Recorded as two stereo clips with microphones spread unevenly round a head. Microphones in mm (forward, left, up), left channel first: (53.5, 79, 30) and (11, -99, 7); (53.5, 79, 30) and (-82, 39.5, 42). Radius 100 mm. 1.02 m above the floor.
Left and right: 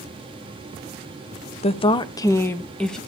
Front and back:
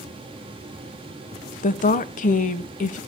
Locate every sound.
1.6 s a woman speaking: 20° left, 1.1 m; by 3.0 s 15° right, 1.4 m